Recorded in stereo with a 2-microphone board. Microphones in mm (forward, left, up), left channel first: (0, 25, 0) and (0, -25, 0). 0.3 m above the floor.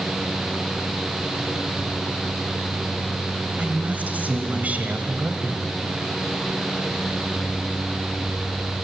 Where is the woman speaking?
35° right (ahead or behind), 1.9 m.